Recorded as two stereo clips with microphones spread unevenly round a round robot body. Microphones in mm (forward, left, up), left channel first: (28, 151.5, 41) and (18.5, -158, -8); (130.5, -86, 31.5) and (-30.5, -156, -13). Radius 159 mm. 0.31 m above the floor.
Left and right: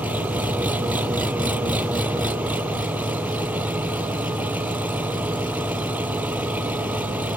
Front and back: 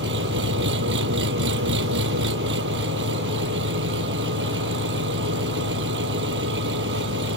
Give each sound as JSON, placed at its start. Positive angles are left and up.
{"t": 0.0, "sound": "an engine running", "azimuth_deg": -175}